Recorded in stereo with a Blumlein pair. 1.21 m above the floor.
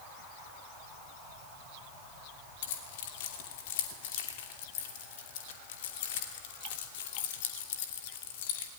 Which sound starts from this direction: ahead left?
Keys jangling, at 2.6 s.